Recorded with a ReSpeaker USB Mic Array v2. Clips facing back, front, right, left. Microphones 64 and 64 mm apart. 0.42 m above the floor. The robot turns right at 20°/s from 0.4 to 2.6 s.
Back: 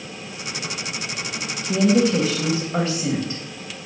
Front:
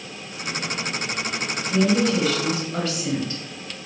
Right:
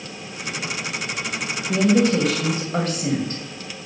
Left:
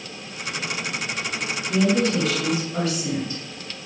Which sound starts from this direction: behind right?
A woman speaking, at 1.7 s.